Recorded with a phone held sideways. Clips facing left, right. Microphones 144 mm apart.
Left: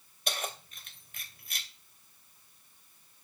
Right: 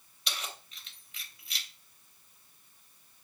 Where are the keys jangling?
50° left (ahead or behind), 3 m.